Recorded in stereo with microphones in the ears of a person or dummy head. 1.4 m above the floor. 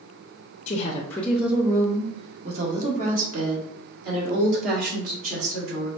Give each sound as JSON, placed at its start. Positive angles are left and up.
{"t": 0.7, "sound": "a woman speaking", "side_deg": 45, "distance_m": 0.6}